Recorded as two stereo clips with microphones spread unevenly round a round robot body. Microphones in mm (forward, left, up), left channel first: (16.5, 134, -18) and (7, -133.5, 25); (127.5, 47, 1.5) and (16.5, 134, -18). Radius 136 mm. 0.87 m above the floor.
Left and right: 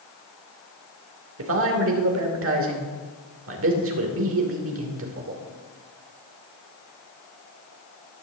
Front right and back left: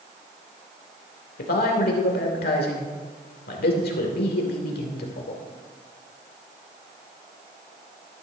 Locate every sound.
1.4 s a man speaking: 50° right, 2.5 m